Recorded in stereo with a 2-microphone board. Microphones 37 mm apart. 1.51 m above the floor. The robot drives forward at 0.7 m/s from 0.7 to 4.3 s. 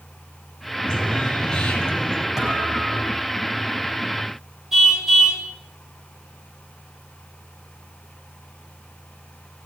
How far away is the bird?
About 4 m.